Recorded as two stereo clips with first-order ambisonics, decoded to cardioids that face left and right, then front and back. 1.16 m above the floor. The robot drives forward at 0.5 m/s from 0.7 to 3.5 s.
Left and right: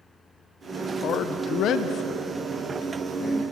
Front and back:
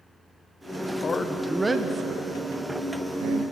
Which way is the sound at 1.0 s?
55° left.